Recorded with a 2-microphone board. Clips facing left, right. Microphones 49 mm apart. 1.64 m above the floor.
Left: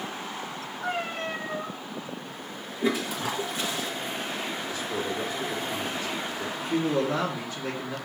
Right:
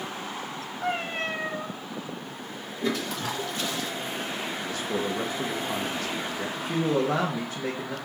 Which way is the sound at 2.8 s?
10° left (ahead or behind).